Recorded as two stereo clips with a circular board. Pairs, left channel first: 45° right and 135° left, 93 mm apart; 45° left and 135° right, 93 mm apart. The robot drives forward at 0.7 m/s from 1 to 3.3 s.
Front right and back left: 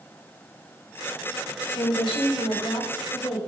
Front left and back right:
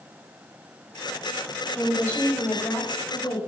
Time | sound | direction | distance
1.7 | a woman speaking | 25° right | 6.5 m